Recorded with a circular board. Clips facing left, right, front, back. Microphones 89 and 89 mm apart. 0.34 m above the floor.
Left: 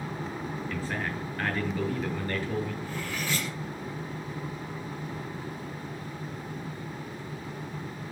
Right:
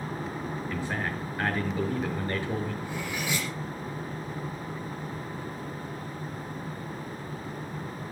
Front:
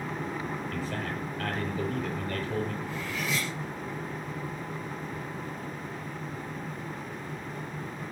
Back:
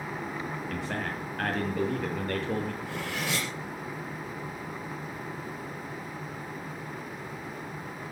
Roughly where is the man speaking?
Behind.